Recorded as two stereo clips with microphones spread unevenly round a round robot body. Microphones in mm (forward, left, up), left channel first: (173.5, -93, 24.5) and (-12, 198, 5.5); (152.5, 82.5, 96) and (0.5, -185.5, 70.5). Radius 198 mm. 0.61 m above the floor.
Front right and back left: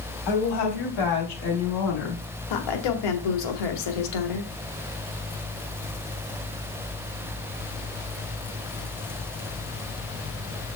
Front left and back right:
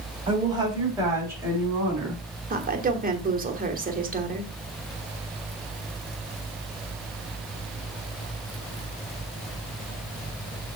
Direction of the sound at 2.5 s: 60° right.